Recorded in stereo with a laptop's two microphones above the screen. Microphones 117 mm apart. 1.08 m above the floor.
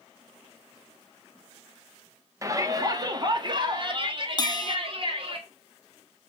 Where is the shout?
25° right (ahead or behind), 1.7 m; by 5.4 s 50° right (ahead or behind), 3 m.